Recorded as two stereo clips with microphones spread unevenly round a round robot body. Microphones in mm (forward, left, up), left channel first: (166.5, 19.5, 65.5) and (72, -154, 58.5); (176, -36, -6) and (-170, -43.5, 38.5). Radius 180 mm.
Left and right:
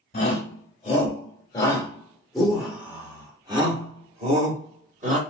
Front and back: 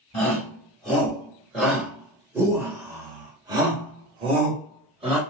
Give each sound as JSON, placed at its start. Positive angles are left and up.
{"t": 0.1, "sound": "a shout", "azimuth_deg": 70, "distance_m": 1.8}